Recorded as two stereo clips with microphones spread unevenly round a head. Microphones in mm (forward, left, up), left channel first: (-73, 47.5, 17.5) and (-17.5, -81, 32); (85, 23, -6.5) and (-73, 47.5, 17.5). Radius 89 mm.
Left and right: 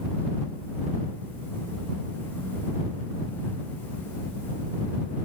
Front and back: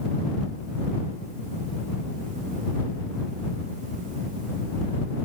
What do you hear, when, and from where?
Only background noise.